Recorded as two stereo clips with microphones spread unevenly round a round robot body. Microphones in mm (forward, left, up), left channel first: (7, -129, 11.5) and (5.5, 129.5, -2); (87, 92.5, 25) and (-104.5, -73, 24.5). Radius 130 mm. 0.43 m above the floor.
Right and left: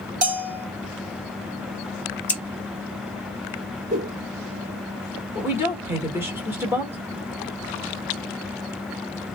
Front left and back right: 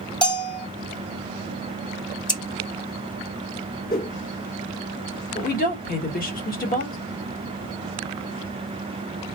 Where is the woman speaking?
20° left, 1.4 m.